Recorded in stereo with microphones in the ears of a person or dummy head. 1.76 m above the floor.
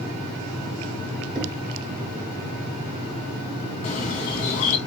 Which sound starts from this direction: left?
A bird, at 3.8 s.